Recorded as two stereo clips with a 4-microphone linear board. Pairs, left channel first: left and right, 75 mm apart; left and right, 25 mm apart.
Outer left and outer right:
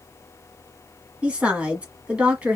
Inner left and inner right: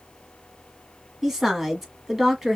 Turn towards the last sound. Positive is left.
turn(degrees=-15)  # may be behind; listen again after turning